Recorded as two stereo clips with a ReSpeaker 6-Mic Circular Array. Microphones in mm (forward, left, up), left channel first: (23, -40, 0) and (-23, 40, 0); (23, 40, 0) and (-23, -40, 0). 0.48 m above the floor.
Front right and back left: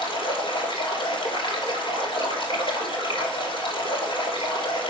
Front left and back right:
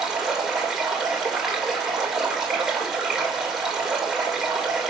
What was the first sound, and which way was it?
Running water, 35° right.